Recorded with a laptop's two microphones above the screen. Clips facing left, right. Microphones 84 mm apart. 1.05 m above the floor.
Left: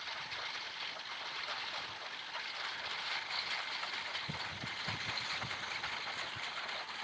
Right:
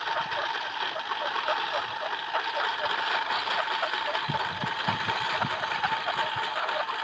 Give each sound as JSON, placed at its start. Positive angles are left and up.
{"t": 0.0, "sound": "a lawn mower", "side_deg": -75}